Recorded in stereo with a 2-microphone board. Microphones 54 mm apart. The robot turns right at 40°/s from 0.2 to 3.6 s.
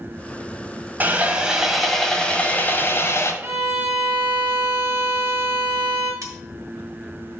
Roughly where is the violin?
Right.